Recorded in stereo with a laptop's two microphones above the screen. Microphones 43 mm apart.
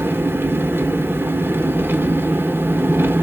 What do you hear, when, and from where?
0.0 s an engine running: 55° right (ahead or behind), 0.9 m